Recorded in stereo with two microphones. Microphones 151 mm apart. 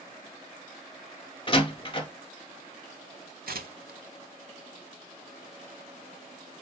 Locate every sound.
1.5 s a door slam: 35° left (ahead or behind), 0.7 m
3.5 s tearing paper: 80° right, 0.5 m